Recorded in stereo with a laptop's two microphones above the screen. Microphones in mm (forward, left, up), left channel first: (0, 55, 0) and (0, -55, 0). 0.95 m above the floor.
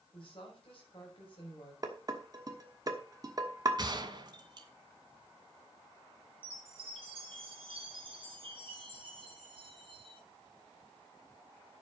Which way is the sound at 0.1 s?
55° left (ahead or behind).